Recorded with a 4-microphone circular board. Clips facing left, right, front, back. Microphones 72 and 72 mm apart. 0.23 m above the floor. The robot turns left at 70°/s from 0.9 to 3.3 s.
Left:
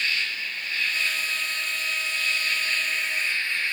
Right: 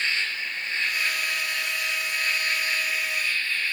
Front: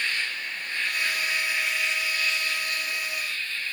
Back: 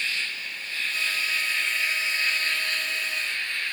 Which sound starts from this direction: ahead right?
An insect, at 0.0 s.